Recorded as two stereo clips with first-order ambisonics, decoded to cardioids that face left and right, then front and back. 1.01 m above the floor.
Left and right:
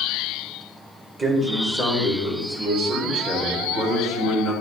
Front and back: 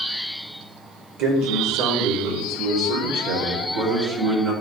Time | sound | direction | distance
1.2 | a man speaking | straight behind | 1.6 m